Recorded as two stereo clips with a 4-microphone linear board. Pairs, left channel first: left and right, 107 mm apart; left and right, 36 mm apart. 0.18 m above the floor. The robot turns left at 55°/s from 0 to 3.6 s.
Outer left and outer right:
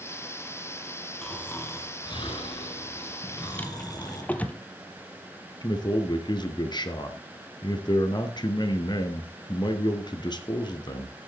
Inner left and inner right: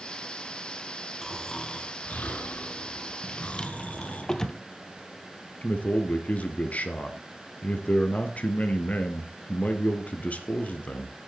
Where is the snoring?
175° left, 3 m; by 4.2 s 45° left, 3 m.